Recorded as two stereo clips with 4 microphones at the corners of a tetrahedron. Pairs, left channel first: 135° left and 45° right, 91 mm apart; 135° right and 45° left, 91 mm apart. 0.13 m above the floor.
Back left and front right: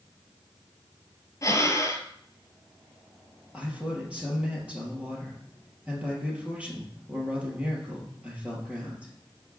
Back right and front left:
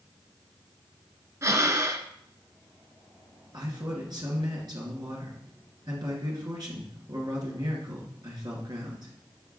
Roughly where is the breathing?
Left.